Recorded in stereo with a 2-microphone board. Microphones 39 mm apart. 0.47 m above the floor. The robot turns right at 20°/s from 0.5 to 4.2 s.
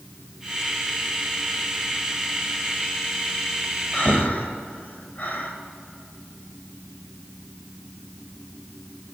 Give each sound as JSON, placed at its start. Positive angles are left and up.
{"t": 3.9, "sound": "breathing", "side_deg": 40, "distance_m": 2.0}